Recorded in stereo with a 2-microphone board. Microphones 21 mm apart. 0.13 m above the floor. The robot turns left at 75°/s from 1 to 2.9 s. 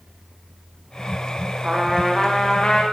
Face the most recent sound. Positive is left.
turn(degrees=125)